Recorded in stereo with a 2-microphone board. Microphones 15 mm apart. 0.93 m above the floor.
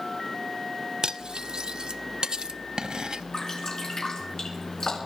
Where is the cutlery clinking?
60° right (ahead or behind), 0.5 m.